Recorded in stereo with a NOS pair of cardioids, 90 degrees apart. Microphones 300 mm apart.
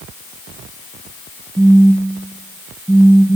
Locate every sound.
1.6 s a phone buzzing: straight ahead, 0.8 m